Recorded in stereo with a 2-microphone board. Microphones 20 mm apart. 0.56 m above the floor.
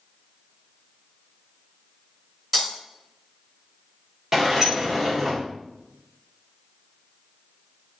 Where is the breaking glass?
5° right (ahead or behind), 2 m.